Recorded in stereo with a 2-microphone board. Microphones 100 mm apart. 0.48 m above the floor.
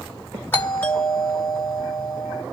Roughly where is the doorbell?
Left.